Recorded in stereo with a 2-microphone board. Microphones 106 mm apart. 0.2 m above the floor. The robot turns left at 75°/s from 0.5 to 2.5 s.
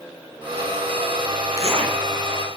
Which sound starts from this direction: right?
A zipper, at 1.5 s.